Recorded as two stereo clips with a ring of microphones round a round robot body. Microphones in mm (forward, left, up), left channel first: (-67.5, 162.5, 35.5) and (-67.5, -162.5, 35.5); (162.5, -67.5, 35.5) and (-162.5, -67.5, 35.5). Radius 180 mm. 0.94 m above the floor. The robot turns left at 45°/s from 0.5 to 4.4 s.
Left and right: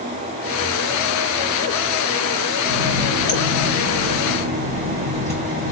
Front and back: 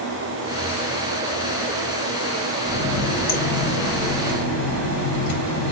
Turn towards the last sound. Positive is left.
turn(degrees=15)